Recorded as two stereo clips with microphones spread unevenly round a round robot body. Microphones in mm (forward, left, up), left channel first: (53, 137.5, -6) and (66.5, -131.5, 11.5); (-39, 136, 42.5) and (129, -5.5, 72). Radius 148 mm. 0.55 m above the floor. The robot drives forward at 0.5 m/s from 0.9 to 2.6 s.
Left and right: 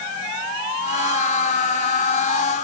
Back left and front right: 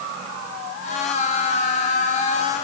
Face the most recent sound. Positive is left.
No sound to turn to.